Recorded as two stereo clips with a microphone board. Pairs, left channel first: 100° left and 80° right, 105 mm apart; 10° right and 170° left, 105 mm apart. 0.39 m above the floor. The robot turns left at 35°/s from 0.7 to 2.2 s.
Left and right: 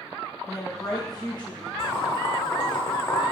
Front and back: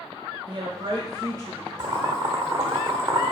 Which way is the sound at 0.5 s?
145° left.